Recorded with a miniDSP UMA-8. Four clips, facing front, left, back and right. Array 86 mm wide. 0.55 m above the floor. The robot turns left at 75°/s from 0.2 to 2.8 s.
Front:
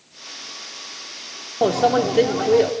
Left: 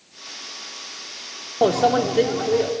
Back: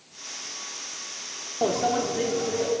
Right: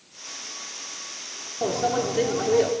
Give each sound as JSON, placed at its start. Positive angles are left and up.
{"t": 1.6, "sound": "a microwave", "azimuth_deg": 65, "distance_m": 0.7}